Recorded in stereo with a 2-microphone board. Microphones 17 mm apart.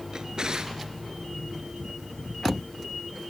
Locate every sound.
0.1 s a drawer: 45° right (ahead or behind), 1.3 m